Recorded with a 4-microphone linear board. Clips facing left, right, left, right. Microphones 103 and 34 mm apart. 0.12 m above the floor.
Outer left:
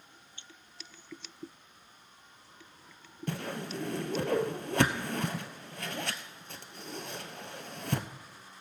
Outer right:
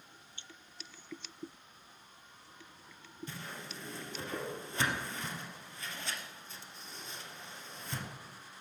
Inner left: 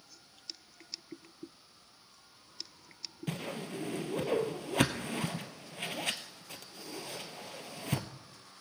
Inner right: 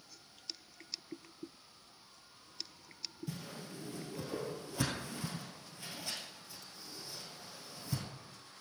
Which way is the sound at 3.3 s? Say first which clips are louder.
Outer left 12 dB, inner left 11 dB; 65° left (ahead or behind).